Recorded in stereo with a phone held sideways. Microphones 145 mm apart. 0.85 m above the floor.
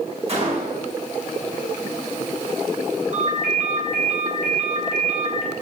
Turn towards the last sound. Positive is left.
turn(degrees=-50)  # may be behind; listen again after turning